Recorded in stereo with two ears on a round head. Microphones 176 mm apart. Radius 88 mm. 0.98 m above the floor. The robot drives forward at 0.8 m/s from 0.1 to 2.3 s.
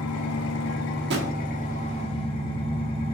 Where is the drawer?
60° right (ahead or behind), 1.1 m; by 1.3 s 50° right (ahead or behind), 1.2 m.